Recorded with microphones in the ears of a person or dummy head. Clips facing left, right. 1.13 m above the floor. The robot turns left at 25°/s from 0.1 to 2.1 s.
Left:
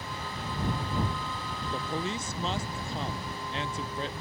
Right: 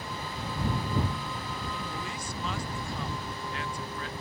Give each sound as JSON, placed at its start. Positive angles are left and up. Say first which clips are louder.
{"t": 1.7, "sound": "a man speaking", "louder": "left 4 dB", "side_deg": 25}